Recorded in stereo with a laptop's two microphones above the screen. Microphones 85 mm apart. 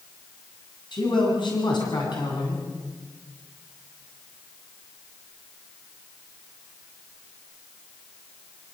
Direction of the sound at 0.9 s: 60° left (ahead or behind).